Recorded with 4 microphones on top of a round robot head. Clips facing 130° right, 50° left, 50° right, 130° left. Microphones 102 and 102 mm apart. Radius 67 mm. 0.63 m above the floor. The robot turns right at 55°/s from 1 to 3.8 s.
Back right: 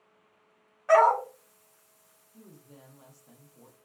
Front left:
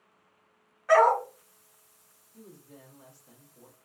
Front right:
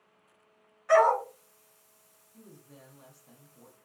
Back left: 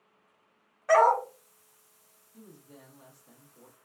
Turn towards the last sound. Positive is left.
turn(degrees=-90)